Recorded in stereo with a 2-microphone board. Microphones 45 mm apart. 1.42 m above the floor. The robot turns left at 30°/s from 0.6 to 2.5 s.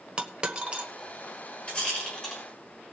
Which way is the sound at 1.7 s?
30° left (ahead or behind).